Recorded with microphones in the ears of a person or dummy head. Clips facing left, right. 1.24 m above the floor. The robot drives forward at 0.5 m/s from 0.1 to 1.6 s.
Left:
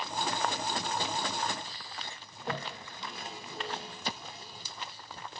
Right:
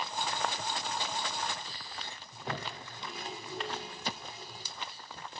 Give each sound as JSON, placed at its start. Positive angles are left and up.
{"t": 2.3, "sound": "a toilet flushing", "side_deg": 0, "distance_m": 1.6}